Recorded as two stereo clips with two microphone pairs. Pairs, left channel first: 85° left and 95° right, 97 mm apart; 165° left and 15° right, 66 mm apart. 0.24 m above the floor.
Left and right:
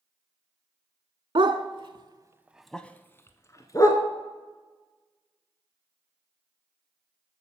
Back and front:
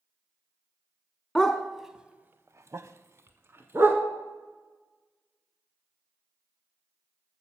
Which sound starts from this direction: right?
A dog barking, at 1.4 s.